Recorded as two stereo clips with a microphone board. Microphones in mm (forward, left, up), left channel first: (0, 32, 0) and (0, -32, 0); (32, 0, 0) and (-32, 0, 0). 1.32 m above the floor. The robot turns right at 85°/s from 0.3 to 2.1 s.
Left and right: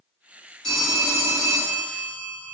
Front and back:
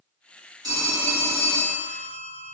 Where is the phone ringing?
170° left, 1.9 m; by 2.5 s 65° right, 1.9 m.